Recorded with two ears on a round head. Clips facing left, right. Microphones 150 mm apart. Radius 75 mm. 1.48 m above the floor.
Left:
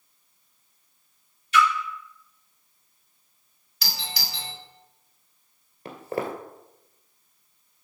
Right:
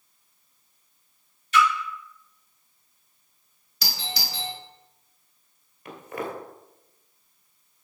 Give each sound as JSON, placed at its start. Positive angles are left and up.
{"t": 1.5, "sound": "a splash", "side_deg": -40, "distance_m": 3.0}
{"t": 3.8, "sound": "a doorbell", "side_deg": -80, "distance_m": 2.5}
{"t": 5.8, "sound": "footsteps", "side_deg": 30, "distance_m": 1.8}